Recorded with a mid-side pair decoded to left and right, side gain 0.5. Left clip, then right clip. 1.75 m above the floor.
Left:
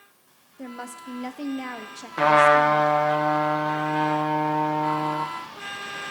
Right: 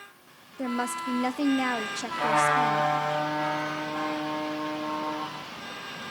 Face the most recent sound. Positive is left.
turn(degrees=65)